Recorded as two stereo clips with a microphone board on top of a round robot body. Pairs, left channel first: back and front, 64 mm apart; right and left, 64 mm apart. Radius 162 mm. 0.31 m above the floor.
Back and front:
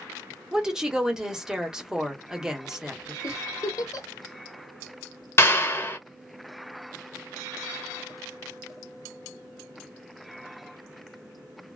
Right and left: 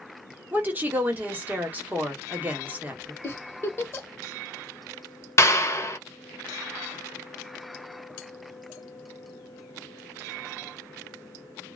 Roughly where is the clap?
Behind right.